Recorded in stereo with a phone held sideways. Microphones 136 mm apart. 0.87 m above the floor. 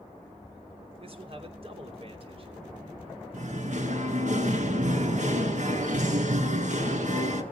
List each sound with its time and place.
1.0 s a man speaking: 40° right (ahead or behind), 3 m
3.3 s singing: 60° right (ahead or behind), 2 m